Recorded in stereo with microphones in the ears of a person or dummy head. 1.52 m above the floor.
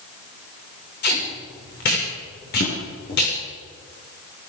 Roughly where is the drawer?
Left.